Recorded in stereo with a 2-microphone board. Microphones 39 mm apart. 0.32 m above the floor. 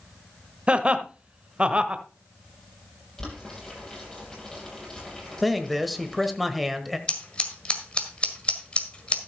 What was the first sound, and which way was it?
Laughter, 30° right (ahead or behind).